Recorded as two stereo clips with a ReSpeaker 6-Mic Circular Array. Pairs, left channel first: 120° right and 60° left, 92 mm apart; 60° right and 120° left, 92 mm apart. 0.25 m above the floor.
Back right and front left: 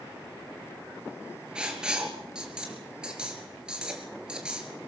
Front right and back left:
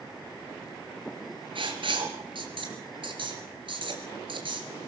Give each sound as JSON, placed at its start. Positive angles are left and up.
{"t": 1.6, "sound": "writing", "azimuth_deg": 140, "distance_m": 3.5}